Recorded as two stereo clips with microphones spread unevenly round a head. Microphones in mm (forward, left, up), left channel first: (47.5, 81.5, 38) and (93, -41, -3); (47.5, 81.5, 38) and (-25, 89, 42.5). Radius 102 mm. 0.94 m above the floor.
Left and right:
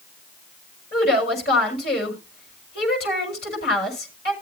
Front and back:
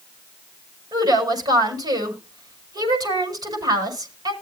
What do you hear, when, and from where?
0.9 s a woman speaking: 145° left, 5.5 m